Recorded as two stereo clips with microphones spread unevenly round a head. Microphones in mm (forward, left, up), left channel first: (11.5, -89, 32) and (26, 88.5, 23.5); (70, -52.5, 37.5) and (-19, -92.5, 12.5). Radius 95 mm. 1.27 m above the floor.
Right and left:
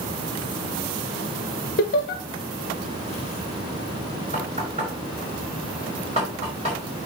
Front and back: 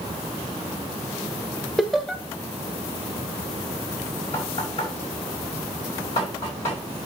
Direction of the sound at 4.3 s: 25° left.